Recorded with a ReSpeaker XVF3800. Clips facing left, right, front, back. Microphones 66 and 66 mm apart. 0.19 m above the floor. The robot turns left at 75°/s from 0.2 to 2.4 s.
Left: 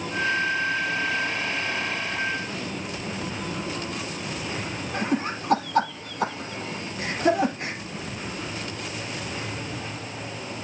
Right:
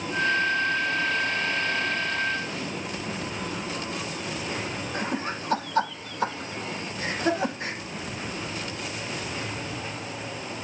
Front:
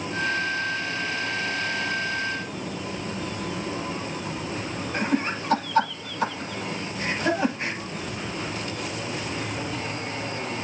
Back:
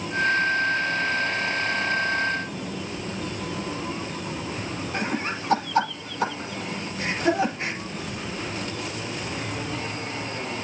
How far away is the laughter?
About 6.5 m.